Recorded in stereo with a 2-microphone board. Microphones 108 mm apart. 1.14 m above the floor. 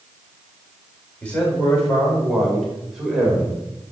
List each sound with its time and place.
1.2 s a man speaking: 10° left (ahead or behind), 5.5 m; by 3.6 s 10° right (ahead or behind), 6 m